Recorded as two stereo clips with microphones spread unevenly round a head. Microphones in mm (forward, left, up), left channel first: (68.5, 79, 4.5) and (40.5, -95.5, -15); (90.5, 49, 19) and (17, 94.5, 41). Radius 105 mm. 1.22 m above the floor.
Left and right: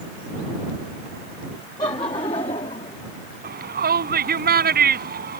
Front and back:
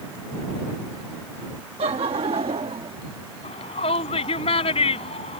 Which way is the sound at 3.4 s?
65° right.